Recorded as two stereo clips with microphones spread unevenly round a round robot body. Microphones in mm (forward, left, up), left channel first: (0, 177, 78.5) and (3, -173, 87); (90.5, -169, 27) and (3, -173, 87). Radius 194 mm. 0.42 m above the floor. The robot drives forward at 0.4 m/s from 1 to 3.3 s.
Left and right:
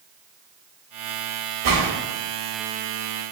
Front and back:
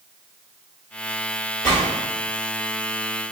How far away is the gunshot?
About 1.8 m.